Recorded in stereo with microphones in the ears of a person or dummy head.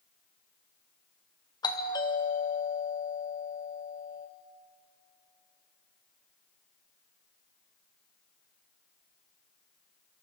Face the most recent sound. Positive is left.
turn(degrees=20)  # may be behind; listen again after turning